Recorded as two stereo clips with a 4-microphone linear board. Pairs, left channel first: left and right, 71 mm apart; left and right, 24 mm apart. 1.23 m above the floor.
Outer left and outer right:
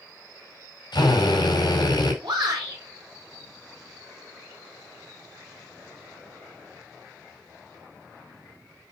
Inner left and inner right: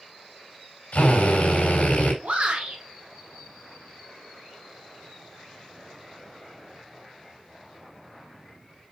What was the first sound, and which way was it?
A drill, 85° left.